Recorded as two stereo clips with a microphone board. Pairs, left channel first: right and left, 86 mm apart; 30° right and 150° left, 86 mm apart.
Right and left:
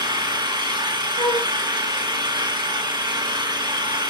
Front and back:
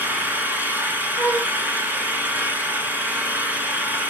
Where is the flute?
115° right, 7 m.